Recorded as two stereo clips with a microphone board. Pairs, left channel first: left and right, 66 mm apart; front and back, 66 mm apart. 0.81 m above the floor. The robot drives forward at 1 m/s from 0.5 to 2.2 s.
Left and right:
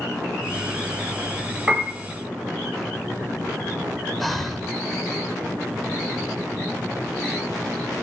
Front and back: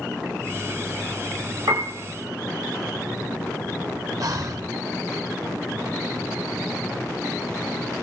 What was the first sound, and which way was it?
A piano, 165° right.